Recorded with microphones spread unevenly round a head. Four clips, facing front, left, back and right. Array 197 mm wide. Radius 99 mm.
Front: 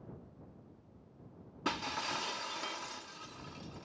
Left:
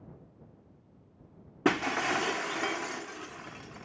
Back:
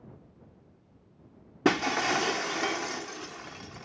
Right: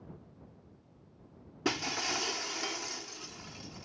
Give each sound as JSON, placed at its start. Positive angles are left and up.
{"t": 1.6, "sound": "breaking glass", "azimuth_deg": 155}